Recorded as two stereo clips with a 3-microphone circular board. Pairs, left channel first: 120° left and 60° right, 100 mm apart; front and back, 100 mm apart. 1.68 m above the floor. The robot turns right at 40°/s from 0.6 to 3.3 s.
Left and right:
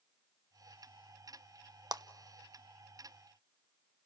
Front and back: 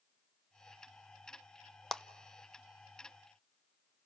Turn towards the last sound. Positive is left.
turn(degrees=-30)